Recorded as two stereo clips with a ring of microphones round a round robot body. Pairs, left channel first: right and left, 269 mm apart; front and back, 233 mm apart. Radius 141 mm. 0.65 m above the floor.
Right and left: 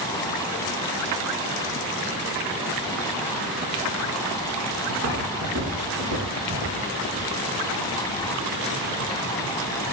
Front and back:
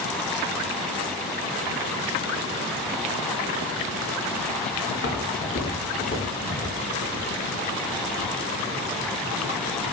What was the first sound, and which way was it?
Footsteps, 45° left.